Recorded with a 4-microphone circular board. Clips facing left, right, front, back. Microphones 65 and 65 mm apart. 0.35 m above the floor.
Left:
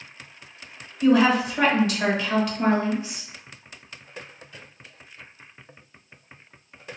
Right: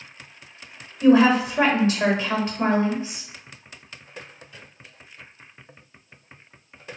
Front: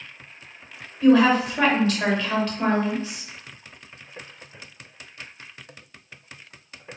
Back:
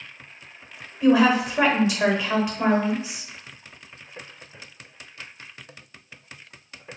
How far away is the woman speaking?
About 0.9 m.